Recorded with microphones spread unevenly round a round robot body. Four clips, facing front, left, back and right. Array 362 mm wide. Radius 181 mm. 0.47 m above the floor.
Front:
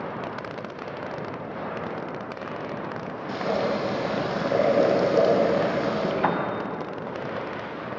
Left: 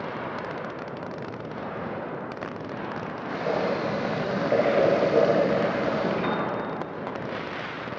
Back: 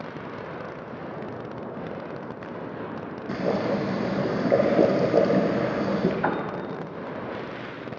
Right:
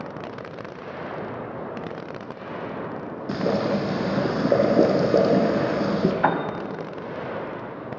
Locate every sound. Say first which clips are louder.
3.3 s boiling: right 3 dB, even; 100° right, 4 m
6.2 s a piano: right 5 dB, front 2 dB; 65° right, 2.5 m